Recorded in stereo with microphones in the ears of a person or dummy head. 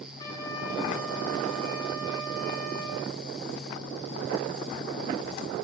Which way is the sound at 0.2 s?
15° left (ahead or behind).